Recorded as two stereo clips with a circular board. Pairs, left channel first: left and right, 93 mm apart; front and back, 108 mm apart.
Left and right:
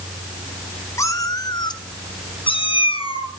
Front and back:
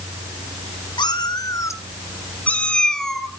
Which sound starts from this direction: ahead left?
A cat meowing, at 1.0 s.